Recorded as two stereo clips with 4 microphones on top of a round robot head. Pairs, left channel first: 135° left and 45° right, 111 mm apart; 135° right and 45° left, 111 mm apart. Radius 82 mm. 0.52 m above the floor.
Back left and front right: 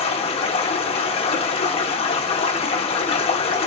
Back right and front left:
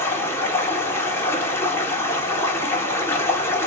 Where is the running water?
160° left, 1.1 m.